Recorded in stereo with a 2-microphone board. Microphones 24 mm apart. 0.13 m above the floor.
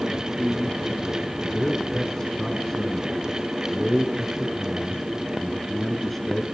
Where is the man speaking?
5° left (ahead or behind), 1.8 m.